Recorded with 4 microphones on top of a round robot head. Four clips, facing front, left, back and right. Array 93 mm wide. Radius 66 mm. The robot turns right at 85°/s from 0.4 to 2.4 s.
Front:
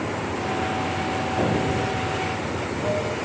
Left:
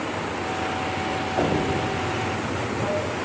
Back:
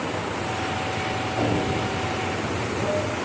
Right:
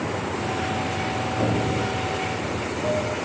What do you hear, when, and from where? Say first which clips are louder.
0.0 s running water: right 1 dB, front 1 dB; 45° right, 3 m; by 3.2 s 125° left, 3 m
1.4 s an explosion: left 2 dB, even; 75° left, 3.5 m; by 2.1 s 140° left, 3.5 m